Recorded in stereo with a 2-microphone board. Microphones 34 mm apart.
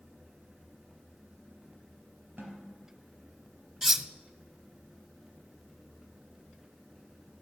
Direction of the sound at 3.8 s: 15° right (ahead or behind).